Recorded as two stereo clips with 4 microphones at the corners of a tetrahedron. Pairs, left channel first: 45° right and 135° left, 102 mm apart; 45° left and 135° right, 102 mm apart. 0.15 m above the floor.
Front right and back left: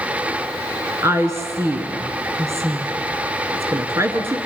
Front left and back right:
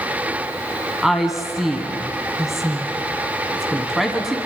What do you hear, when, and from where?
1.0 s a woman speaking: 140° left, 1.5 m